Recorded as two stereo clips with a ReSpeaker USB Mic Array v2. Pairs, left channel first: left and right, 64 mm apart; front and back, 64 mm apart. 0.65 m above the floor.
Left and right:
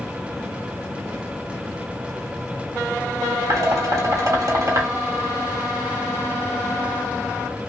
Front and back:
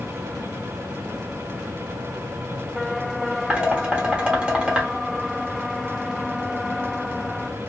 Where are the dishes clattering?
105° right, 1.2 m.